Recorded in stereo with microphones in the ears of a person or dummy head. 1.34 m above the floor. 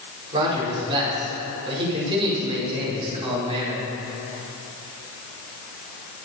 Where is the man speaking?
30° right (ahead or behind), 5 m.